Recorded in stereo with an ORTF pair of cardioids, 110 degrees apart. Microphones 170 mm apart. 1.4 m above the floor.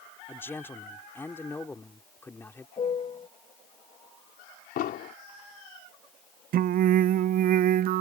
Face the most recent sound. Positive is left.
turn(degrees=-65)